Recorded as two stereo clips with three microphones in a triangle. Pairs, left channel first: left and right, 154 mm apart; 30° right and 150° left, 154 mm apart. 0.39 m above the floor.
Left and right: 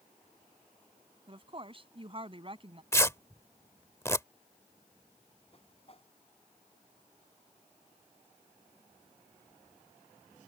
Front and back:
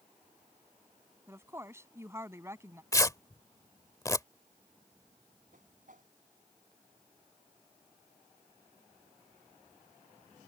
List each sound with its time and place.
1.3 s a woman speaking: 140° right
2.9 s tearing paper: 25° left
5.5 s a whoosh: 135° left